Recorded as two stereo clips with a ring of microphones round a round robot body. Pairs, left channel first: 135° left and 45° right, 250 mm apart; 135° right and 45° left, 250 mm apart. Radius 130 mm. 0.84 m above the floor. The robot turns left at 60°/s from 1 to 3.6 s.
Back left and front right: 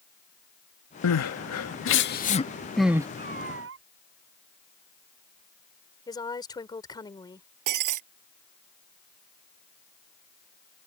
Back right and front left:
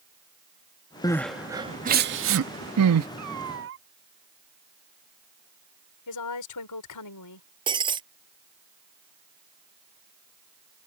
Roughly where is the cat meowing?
Ahead left.